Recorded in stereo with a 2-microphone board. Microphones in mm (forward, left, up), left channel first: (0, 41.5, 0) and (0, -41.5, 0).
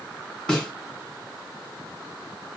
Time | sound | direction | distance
0.5 | a snare drum | 10° left (ahead or behind) | 1.8 m